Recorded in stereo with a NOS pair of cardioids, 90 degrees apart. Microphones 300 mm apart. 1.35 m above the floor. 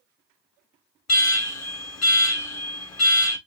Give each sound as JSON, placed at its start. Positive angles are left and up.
{"t": 1.1, "sound": "an alarm", "azimuth_deg": 60, "distance_m": 1.4}